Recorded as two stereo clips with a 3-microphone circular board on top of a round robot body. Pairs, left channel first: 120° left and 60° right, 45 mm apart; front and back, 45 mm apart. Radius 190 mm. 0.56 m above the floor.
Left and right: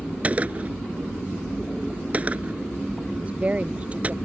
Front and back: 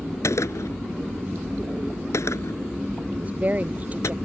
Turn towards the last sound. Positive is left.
turn(degrees=-120)